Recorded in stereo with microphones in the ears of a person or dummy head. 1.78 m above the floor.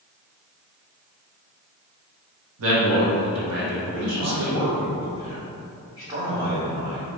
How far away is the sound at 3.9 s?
About 1.0 m.